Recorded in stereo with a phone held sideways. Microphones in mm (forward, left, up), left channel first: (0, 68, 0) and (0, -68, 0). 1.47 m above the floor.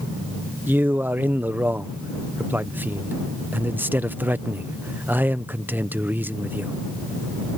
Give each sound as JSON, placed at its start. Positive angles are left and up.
{"t": 0.7, "sound": "a man speaking", "side_deg": -15}